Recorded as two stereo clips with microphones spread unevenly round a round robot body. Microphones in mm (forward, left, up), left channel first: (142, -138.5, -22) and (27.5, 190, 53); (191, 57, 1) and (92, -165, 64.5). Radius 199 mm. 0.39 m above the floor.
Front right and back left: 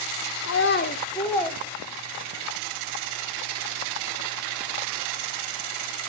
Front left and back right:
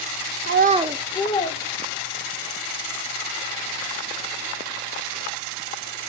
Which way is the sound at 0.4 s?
80° right.